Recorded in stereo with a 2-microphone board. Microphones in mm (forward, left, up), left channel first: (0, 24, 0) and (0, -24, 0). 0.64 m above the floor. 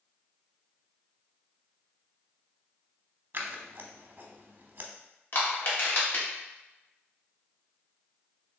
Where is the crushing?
50° left (ahead or behind), 1.5 m.